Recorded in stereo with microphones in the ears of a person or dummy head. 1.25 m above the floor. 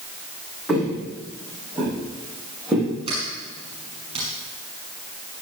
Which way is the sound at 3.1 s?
35° right (ahead or behind).